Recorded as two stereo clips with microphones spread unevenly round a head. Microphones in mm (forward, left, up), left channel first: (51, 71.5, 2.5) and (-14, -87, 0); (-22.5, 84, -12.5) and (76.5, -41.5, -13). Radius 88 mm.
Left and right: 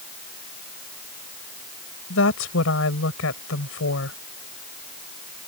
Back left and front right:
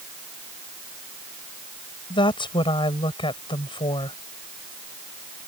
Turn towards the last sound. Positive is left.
turn(degrees=70)